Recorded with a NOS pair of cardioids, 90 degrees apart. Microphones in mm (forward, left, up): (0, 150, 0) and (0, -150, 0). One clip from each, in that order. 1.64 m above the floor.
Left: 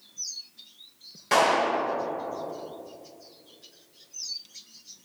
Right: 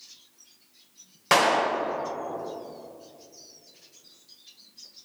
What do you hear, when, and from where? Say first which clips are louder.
1.3 s a clap: right 1 dB; 60° right, 1.7 m